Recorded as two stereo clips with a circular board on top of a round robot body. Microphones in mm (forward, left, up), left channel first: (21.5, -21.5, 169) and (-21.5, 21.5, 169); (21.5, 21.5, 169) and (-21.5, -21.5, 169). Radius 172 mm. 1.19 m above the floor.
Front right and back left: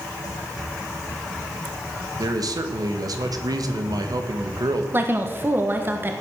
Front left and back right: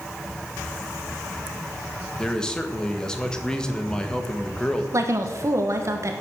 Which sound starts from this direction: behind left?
A man speaking, at 2.2 s.